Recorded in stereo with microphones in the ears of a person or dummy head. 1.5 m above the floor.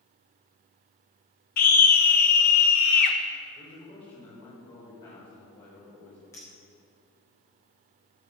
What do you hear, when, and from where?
1.6 s a scream: 40° left (ahead or behind), 1.3 m
3.5 s a man speaking: 20° left (ahead or behind), 4.5 m
6.3 s a clink: 10° left (ahead or behind), 2.5 m